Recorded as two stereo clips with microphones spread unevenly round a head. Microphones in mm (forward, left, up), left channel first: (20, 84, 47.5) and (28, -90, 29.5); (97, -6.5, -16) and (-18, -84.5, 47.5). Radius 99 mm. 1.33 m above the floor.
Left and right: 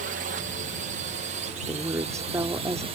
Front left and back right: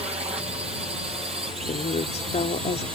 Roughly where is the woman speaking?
Ahead.